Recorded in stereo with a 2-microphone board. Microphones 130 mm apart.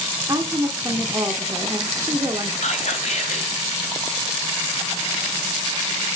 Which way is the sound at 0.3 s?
30° right (ahead or behind).